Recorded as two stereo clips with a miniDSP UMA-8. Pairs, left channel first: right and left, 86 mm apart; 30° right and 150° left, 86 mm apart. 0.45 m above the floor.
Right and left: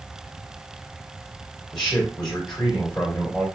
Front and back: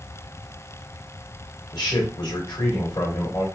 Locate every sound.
1.7 s a man speaking: 10° right, 1.6 m